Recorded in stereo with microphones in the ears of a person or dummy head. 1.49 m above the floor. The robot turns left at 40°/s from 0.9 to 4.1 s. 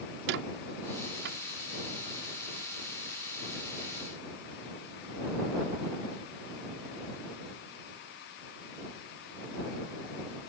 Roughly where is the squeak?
Right.